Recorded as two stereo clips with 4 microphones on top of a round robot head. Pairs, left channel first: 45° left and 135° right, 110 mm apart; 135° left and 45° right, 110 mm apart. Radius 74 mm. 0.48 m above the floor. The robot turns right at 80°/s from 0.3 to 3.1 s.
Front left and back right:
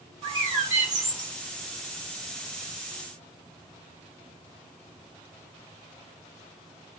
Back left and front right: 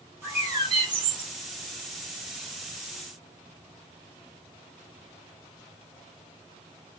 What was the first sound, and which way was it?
A bird, 105° right.